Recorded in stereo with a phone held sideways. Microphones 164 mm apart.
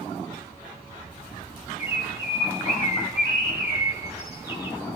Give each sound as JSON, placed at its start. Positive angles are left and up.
{"t": 1.8, "sound": "a bird", "side_deg": -20, "distance_m": 1.5}